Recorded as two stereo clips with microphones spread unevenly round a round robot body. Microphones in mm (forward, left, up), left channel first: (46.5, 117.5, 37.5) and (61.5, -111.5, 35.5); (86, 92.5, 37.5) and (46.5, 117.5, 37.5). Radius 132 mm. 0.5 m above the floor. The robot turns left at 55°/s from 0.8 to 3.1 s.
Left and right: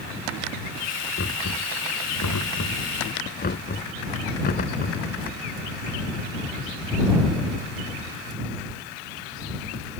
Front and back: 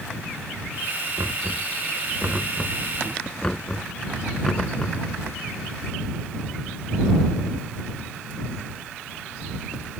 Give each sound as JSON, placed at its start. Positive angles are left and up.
{"t": 1.2, "sound": "knocking", "azimuth_deg": 150}